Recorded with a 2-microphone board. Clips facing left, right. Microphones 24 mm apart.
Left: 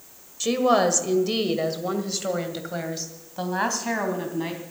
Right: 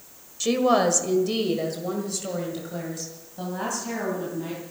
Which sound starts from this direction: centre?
A woman speaking, at 0.4 s.